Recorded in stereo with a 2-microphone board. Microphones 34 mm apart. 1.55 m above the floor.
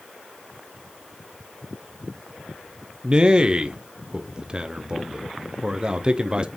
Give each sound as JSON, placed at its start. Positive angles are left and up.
{"t": 3.0, "sound": "a man speaking", "side_deg": -25, "distance_m": 0.6}